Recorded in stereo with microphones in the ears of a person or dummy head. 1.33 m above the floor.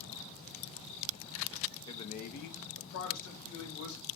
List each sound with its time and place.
1.9 s a man speaking: 20° left (ahead or behind), 0.7 m; by 4.0 s 75° left (ahead or behind), 2.0 m